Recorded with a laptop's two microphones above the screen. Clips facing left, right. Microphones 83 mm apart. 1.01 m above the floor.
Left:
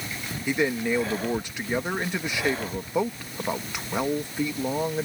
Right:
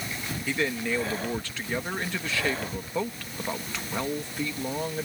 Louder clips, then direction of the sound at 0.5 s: Left 4 dB; 20° left (ahead or behind).